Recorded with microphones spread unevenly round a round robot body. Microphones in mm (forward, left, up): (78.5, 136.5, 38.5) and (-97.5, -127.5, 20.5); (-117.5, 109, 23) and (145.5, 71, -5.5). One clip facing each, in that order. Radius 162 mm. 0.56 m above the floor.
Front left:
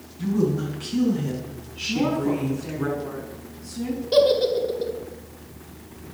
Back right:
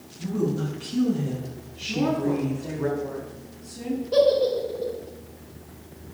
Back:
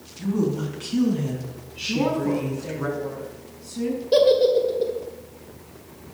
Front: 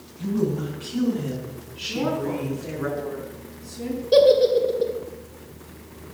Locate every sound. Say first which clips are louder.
0.2 s a woman speaking: front left 3 dB, even; 140° left, 4.5 m; by 2.9 s 105° left, 5.5 m
1.9 s a woman speaking: front left 1 dB, back 3 dB; 125° left, 5.5 m
4.1 s a giggle: front left 1 dB, front 1 dB; 80° left, 2 m